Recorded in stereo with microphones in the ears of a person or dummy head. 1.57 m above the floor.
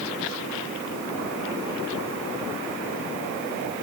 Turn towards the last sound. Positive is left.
No sound to turn to.